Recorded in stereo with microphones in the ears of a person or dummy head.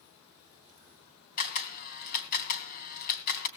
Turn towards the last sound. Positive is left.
turn(degrees=50)  # may be behind; listen again after turning